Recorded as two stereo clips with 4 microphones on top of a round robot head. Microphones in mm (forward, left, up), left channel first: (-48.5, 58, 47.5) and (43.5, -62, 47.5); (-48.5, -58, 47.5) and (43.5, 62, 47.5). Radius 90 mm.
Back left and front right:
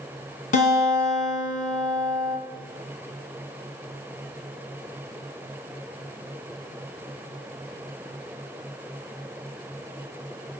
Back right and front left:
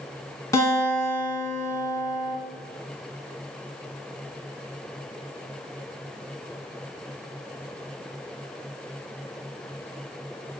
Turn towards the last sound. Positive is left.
turn(degrees=165)